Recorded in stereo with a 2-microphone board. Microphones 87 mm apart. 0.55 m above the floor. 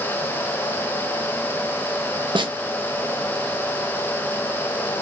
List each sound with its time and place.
2.4 s a snare drum: 65° right (ahead or behind), 0.6 m